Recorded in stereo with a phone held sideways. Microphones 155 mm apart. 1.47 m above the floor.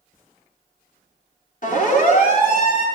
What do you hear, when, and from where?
1.6 s a siren: 60° left (ahead or behind), 8.5 m